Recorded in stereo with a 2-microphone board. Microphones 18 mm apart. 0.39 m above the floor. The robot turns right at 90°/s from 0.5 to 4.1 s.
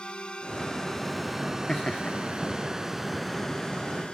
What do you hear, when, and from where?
0.0 s a drone: 65° left (ahead or behind); by 4.1 s 75° left (ahead or behind)
1.7 s laughter: 35° left; by 2.2 s 80° left